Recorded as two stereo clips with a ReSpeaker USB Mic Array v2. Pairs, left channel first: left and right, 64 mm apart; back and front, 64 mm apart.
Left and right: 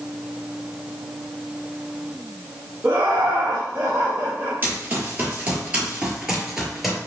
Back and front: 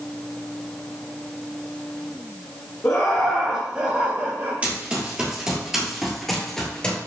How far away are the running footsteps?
About 1.9 m.